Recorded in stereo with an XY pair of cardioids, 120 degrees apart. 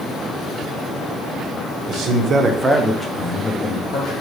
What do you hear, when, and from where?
1.9 s a man speaking: 65° right, 1.0 m; by 4.1 s 50° left, 1.2 m